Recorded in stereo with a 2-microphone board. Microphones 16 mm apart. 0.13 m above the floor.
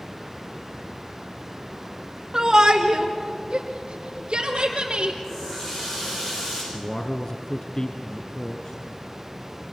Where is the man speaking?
45° left (ahead or behind), 1.6 m.